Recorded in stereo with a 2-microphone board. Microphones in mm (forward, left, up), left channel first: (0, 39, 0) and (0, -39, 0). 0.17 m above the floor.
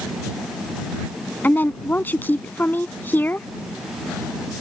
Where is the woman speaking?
25° left (ahead or behind).